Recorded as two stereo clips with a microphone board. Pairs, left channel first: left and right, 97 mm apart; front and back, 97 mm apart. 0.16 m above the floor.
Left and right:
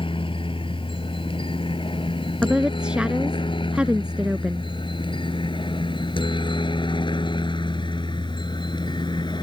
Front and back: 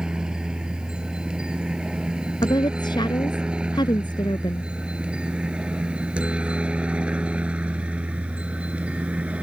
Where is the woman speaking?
10° right.